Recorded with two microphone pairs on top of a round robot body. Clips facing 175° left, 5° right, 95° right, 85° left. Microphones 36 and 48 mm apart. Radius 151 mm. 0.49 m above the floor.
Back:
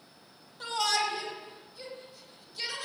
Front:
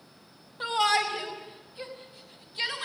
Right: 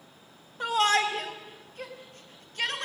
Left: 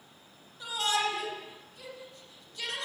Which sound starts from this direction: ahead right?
A shout, at 0.6 s.